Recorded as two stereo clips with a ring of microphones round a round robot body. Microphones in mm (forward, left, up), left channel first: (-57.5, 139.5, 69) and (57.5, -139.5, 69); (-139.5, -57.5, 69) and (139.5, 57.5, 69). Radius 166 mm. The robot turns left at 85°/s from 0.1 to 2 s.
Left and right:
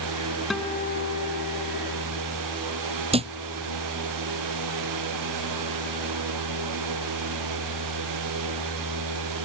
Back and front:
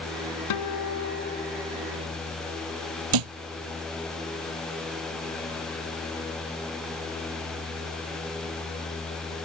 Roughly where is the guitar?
Behind right.